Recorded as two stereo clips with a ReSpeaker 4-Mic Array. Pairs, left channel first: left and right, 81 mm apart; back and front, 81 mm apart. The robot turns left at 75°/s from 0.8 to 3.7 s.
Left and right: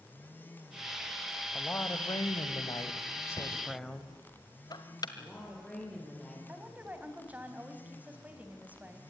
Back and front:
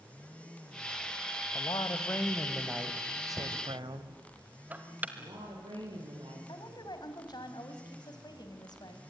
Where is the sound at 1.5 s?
170° left, 2 m; by 4.2 s 5° left, 2 m.